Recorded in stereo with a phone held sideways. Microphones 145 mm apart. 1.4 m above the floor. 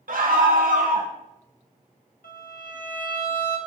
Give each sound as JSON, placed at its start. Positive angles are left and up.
{"t": 0.1, "sound": "a scream", "side_deg": -75, "distance_m": 1.4}
{"t": 2.2, "sound": "a violin", "side_deg": 70, "distance_m": 1.7}